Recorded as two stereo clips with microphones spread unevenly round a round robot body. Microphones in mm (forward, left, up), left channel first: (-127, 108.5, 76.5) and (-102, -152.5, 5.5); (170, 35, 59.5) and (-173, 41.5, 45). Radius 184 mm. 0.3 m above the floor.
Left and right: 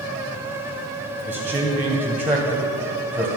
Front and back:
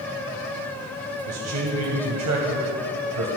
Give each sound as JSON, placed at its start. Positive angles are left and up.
{"t": 1.3, "sound": "a man speaking", "azimuth_deg": -155, "distance_m": 2.5}